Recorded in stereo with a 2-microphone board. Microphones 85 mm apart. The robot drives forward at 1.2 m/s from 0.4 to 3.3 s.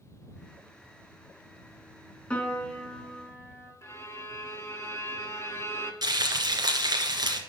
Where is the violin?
30° left (ahead or behind), 1.8 m.